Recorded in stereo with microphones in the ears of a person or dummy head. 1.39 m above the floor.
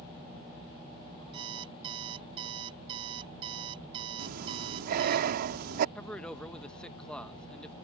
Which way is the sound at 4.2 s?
40° right (ahead or behind).